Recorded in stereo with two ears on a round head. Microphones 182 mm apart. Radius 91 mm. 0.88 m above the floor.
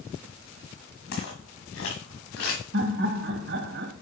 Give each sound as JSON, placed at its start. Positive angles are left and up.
{"t": 1.1, "sound": "footsteps", "side_deg": 70, "distance_m": 3.5}
{"t": 2.7, "sound": "laughter", "side_deg": -60, "distance_m": 1.6}